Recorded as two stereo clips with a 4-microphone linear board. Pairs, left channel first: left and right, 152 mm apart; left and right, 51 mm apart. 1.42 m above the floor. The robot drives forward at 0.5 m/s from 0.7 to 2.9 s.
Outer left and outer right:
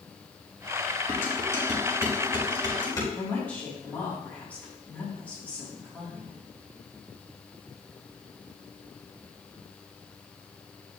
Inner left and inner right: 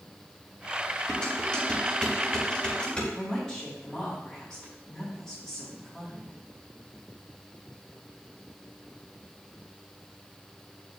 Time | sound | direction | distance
1.1 | dishes clattering | 15° left (ahead or behind) | 4.5 m
3.1 | a woman speaking | 10° left (ahead or behind) | 4 m